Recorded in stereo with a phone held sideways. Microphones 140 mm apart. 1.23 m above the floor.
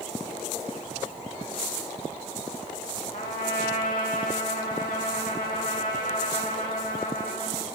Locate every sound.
3.1 s a trumpet: 75° left (ahead or behind), 7.5 m